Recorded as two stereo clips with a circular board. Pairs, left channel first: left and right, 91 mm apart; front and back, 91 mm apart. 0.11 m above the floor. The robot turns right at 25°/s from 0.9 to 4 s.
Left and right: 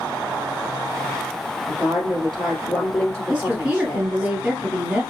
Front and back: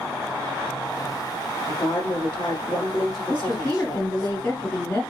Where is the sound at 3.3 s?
40° right, 1.6 m; by 5.0 s 25° right, 1.6 m.